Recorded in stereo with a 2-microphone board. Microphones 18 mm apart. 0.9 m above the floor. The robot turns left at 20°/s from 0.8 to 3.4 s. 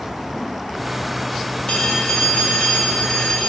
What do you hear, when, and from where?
1.7 s a phone ringing: 125° left, 2.5 m; by 3.5 s 90° left, 2.5 m